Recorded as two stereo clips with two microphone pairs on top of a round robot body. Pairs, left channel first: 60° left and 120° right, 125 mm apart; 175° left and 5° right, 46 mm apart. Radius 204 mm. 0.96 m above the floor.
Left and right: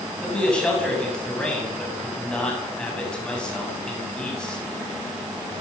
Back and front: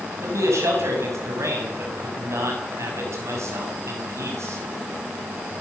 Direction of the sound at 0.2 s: 25° right.